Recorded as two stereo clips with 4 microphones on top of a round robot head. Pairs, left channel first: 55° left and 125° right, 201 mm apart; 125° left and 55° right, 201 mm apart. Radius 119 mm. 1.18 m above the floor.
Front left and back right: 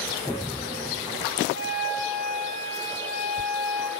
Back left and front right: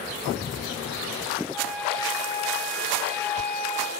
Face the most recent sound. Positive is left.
turn(degrees=40)